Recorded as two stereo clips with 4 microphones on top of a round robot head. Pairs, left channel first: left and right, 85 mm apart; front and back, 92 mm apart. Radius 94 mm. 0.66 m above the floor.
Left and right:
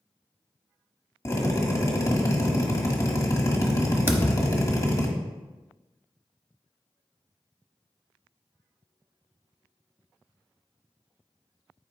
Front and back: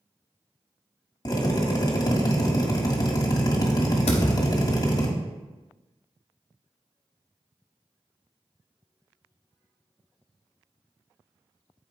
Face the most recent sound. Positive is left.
turn(degrees=-35)